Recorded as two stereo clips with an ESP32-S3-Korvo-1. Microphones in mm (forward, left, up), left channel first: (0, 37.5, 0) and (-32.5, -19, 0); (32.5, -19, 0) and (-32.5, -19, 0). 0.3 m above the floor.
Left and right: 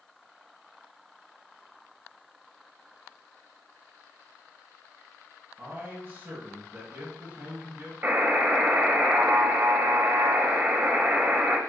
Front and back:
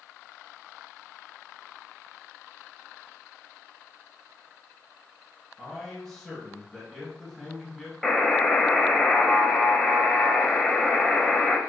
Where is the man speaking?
90° right, 2 m.